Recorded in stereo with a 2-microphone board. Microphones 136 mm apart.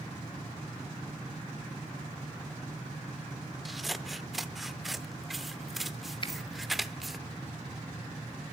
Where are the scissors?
Centre (ahead or behind), 0.8 m.